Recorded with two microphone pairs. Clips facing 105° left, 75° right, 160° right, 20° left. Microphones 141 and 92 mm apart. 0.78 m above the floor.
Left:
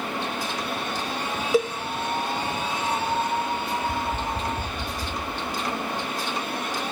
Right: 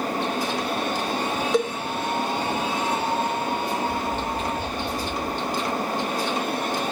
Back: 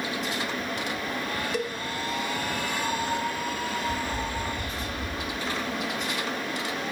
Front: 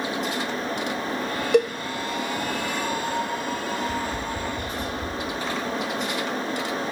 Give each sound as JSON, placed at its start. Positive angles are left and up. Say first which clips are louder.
{"t": 1.5, "sound": "a cowbell", "louder": "left 1 dB, front 13 dB", "azimuth_deg": 20, "distance_m": 0.9}
{"t": 3.8, "sound": "tapping", "louder": "right 2 dB, front 2 dB", "azimuth_deg": 60, "distance_m": 8.0}